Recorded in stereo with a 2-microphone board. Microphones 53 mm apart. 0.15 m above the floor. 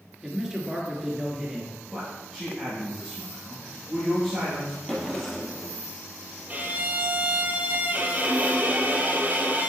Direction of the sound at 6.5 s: 35° right (ahead or behind).